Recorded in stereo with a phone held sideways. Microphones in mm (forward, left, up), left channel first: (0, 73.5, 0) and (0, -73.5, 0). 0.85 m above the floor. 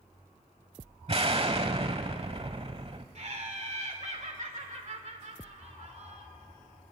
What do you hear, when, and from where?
1.1 s an explosion: 40° right (ahead or behind), 1.1 m
3.1 s laughter: 50° right (ahead or behind), 2.5 m